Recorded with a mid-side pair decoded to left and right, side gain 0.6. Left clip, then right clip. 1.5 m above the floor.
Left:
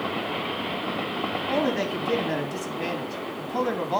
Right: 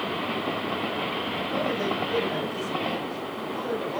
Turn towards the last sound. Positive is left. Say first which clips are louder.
# left 5 dB
turn(degrees=60)